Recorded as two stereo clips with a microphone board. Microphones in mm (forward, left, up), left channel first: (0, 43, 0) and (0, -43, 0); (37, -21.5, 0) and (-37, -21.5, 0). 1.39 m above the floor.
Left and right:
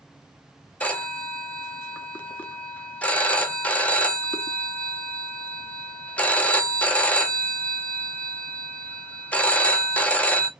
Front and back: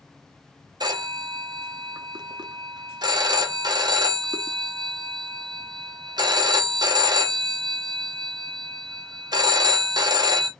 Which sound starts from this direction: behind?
A phone ringing, at 0.8 s.